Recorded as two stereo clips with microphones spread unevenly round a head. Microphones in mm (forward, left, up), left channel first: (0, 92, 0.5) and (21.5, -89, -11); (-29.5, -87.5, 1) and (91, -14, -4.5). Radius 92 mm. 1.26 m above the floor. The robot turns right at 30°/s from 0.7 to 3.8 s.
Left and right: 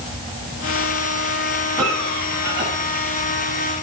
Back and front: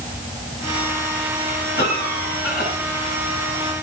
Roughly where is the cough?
Behind.